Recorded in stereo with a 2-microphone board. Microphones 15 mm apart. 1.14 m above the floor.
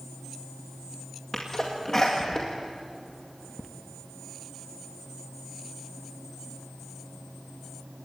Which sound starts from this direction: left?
A sneeze, at 1.3 s.